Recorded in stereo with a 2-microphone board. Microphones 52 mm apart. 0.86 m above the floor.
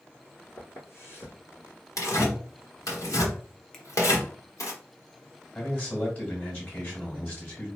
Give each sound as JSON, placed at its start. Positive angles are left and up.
{"t": 0.6, "sound": "footsteps", "side_deg": 50, "distance_m": 1.8}
{"t": 2.0, "sound": "tearing paper", "side_deg": 85, "distance_m": 1.4}
{"t": 3.7, "sound": "a finger snap", "side_deg": 10, "distance_m": 0.7}
{"t": 5.5, "sound": "a man speaking", "side_deg": 35, "distance_m": 2.0}